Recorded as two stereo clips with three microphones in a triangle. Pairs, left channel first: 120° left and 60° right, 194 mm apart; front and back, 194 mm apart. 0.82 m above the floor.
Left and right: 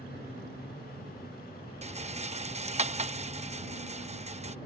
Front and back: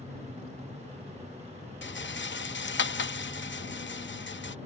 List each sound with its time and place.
1.8 s a rattle: 10° right